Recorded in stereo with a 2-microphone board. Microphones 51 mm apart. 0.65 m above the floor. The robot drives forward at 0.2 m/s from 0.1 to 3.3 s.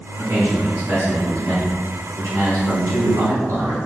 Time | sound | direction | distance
0.2 | a man speaking | 55° right (ahead or behind) | 1.3 m